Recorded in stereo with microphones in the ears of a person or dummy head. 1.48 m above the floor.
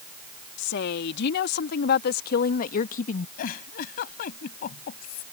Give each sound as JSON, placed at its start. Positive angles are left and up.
{"t": 0.6, "sound": "a woman speaking", "side_deg": 75}
{"t": 3.4, "sound": "a giggle", "side_deg": 60}